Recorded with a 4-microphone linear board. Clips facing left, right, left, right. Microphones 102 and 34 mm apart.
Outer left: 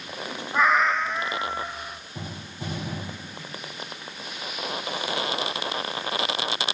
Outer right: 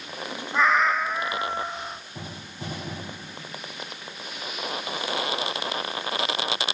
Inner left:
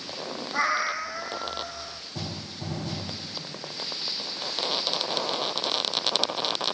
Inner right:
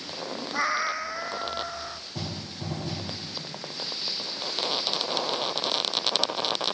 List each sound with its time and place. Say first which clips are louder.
0.5 s a cat meowing: even, inner left 1 dB; 5° left (ahead or behind), 2 m; by 2.0 s 25° right (ahead or behind), 2.5 m